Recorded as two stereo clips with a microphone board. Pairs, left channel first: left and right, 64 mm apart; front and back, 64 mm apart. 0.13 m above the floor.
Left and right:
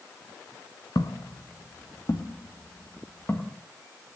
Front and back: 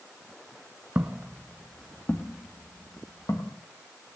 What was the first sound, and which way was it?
Footsteps, 115° left.